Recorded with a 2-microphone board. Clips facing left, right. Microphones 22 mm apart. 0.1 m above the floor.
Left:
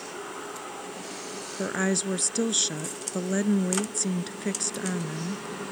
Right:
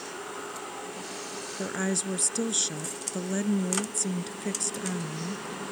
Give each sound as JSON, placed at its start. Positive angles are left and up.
{"t": 1.6, "sound": "a woman speaking", "side_deg": 20}